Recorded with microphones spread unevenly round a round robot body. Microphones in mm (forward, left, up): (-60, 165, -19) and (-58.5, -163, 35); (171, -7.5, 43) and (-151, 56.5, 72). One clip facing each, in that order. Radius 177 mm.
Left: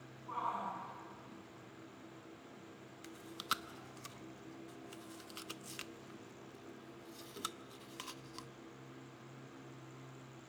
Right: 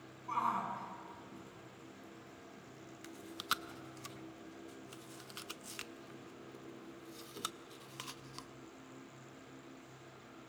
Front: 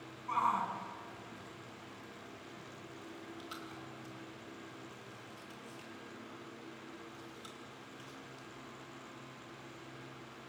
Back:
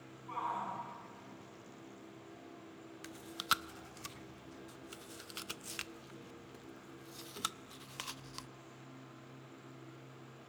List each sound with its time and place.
0.3 s a shout: 40° right, 8.5 m
3.0 s chewing: straight behind, 0.6 m